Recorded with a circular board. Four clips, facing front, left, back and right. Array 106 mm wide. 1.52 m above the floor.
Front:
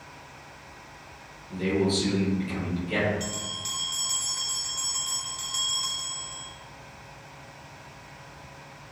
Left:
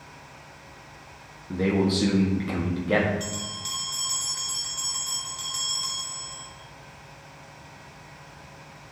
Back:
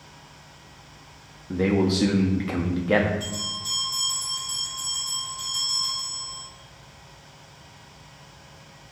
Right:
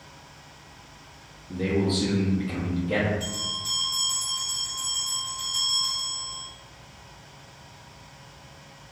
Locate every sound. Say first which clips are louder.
1.5 s a man speaking: left 2 dB, back 4 dB; 155° left, 1.4 m
3.2 s a bell: even, back 1 dB; 50° left, 2.5 m